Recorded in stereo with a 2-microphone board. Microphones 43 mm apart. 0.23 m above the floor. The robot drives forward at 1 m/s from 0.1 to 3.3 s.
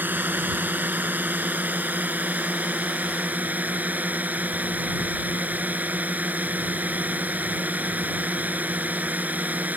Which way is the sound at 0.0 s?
45° right (ahead or behind).